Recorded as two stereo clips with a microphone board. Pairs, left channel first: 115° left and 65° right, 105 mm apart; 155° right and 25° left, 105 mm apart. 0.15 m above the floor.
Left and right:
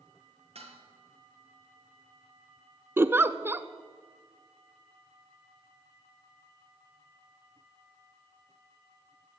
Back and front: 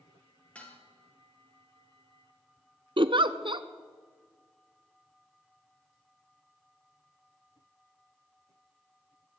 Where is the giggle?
Straight ahead, 0.6 m.